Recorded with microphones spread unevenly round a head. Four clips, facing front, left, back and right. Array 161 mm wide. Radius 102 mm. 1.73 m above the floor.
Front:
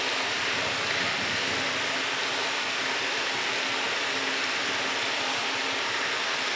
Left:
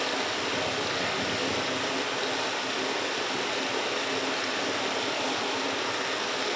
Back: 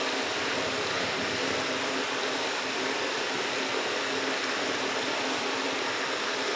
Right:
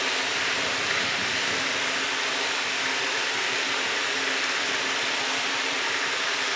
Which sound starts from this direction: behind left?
Running water, at 0.0 s.